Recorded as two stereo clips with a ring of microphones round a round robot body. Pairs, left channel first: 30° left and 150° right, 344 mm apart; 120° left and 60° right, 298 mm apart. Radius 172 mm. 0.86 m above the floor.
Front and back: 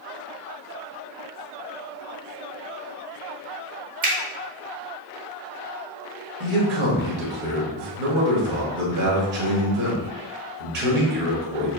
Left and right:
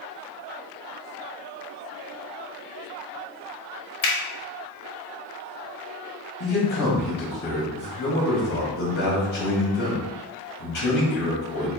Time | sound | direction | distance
4.0 | a finger snap | 150° left | 1.0 m
6.4 | a man speaking | straight behind | 1.7 m